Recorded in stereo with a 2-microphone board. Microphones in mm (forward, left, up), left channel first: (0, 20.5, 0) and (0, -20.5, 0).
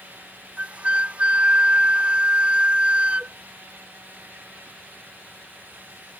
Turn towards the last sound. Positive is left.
turn(degrees=-35)  # may be behind; listen again after turning